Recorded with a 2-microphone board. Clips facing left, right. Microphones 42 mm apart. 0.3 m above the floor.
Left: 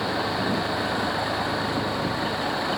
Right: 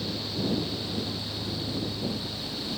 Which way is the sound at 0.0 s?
70° left (ahead or behind).